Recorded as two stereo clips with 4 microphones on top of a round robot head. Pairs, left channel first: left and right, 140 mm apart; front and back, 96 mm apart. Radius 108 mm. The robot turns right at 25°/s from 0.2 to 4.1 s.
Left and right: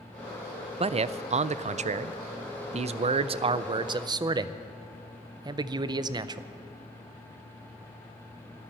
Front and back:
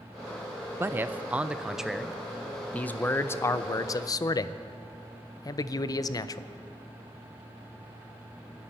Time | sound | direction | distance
0.8 | a man speaking | 120° right | 0.5 m